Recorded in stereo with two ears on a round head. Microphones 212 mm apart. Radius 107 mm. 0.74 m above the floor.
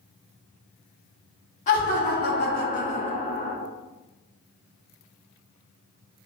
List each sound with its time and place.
1.7 s laughter: 30° left (ahead or behind), 0.8 m; by 3.6 s 20° left (ahead or behind), 1.0 m